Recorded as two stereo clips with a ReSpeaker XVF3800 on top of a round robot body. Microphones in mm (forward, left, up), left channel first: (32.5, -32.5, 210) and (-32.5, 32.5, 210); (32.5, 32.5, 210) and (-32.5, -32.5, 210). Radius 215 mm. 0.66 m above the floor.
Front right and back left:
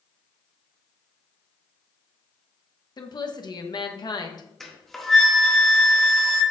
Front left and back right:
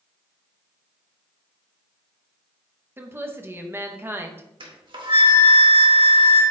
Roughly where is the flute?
Behind right.